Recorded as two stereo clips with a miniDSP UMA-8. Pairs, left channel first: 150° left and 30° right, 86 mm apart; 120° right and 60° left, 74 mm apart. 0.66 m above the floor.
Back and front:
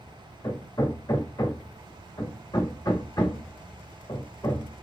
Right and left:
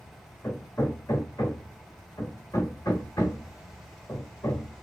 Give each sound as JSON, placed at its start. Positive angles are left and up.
{"t": 0.4, "sound": "hammering", "azimuth_deg": -165, "distance_m": 1.4}